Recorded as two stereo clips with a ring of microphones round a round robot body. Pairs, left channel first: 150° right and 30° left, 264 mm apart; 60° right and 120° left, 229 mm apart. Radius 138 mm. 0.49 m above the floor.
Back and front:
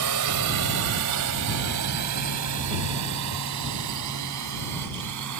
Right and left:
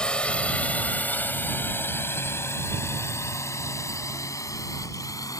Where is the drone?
25° left; by 5.4 s 15° left.